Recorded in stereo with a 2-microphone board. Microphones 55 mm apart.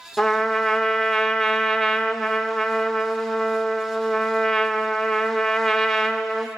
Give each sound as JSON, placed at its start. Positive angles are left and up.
{"t": 0.2, "sound": "a trumpet", "side_deg": 10, "distance_m": 1.1}